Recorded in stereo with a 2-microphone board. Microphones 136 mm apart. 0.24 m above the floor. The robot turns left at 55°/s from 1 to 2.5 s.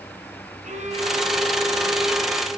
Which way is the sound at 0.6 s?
95° right.